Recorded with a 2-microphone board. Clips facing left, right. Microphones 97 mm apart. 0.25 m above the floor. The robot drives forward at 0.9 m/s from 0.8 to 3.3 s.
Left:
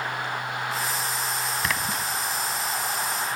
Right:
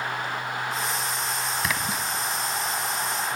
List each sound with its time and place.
1.6 s a splash: centre (ahead or behind), 0.9 m; by 2.1 s 5° right (ahead or behind), 0.6 m